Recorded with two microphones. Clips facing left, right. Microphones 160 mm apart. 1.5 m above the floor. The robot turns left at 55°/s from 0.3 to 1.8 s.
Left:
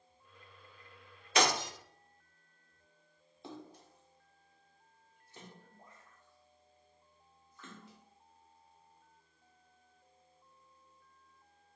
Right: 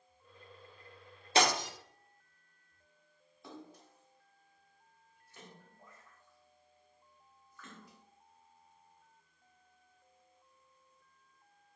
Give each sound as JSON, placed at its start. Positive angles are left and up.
{"t": 1.4, "sound": "breaking glass", "side_deg": -30, "distance_m": 0.8}
{"t": 3.4, "sound": "a splash", "side_deg": 25, "distance_m": 0.6}